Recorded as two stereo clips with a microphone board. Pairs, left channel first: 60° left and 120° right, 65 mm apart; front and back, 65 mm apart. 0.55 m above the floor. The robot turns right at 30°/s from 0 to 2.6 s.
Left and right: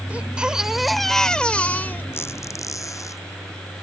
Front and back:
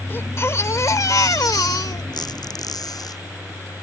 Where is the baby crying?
55° right; by 2.0 s 5° left.